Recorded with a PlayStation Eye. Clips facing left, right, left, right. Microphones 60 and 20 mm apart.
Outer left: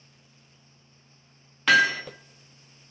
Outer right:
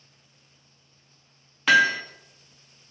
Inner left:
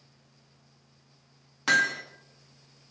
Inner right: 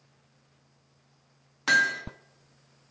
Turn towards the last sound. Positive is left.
turn(degrees=0)  # may be behind; listen again after turning